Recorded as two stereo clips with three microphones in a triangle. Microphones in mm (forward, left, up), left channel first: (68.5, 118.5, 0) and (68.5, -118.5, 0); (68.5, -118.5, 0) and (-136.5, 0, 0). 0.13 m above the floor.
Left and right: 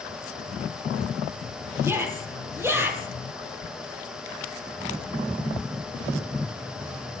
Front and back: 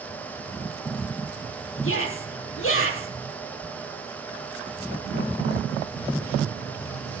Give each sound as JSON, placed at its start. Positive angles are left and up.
{"t": 1.8, "sound": "a shout", "azimuth_deg": -10, "distance_m": 4.5}